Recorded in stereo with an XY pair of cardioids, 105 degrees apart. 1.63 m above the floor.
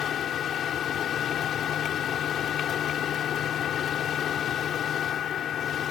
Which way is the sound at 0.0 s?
65° left.